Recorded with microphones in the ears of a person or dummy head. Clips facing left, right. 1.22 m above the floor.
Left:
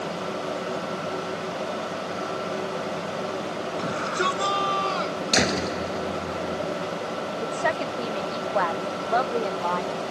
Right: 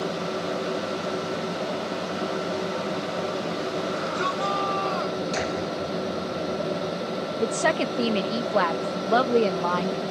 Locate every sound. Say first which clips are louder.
3.8 s a shout: even; 35° left (ahead or behind); by 5.2 s 40° left (ahead or behind)
5.3 s a door slam: left 2 dB; 75° left (ahead or behind)
7.4 s a woman speaking: right 4 dB; 45° right (ahead or behind)